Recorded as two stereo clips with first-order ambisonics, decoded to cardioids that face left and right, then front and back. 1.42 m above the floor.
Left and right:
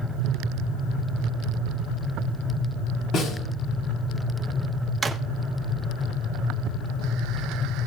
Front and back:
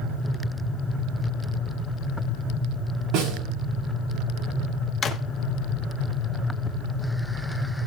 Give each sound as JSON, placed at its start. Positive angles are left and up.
{"t": 3.1, "sound": "a snare drum", "azimuth_deg": 140, "distance_m": 6.0}
{"t": 5.0, "sound": "a drawer", "azimuth_deg": -25, "distance_m": 0.9}